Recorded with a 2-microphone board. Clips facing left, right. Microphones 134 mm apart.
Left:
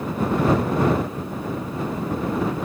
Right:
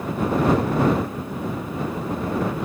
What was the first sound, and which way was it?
Only background noise.